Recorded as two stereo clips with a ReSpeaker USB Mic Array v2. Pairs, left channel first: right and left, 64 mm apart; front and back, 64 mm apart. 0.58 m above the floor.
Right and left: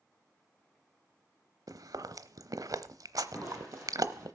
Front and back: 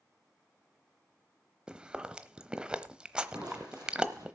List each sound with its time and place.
1.7 s chewing: 105° left, 0.8 m
3.3 s crushing: 145° left, 8 m